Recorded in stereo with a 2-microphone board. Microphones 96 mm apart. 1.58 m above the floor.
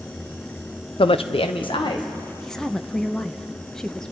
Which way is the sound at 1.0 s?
70° left (ahead or behind).